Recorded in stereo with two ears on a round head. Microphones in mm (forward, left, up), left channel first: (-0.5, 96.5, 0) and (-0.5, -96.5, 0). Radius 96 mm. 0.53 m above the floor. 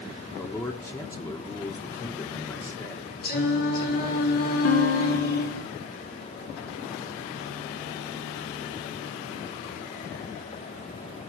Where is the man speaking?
15° left (ahead or behind), 1.4 m.